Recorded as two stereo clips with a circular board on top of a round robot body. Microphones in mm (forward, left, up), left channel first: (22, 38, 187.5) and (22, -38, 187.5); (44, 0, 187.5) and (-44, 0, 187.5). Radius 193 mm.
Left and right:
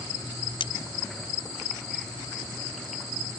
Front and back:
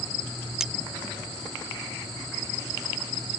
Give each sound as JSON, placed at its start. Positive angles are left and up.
{"t": 0.6, "sound": "cutlery clinking", "azimuth_deg": 95}